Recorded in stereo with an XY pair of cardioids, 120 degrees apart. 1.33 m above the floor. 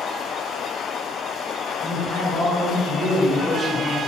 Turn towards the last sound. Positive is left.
turn(degrees=20)